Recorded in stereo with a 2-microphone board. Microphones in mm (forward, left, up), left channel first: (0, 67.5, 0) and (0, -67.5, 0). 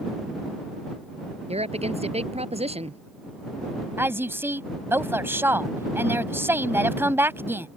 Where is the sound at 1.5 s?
50° right (ahead or behind).